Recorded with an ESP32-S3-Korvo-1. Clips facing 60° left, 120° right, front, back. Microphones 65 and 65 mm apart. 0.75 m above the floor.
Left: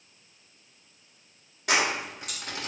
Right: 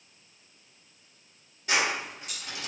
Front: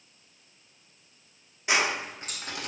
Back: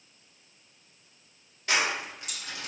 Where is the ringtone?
No ringtone in this recording.